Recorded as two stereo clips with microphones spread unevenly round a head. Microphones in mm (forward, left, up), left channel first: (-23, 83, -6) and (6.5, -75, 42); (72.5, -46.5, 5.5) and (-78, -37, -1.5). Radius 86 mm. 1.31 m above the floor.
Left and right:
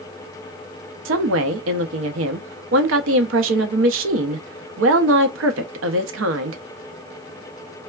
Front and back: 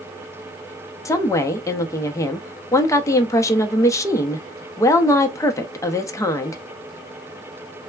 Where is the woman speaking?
75° right, 0.6 m.